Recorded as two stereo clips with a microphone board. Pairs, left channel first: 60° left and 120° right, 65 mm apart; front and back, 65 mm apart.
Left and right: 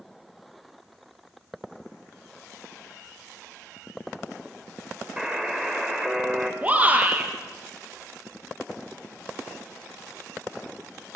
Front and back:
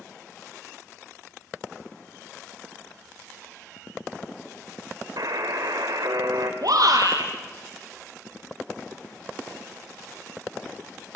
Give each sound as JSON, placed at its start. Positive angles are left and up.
{"t": 5.2, "sound": "a buzzer", "azimuth_deg": 160, "distance_m": 5.5}
{"t": 6.6, "sound": "a shout", "azimuth_deg": 175, "distance_m": 4.5}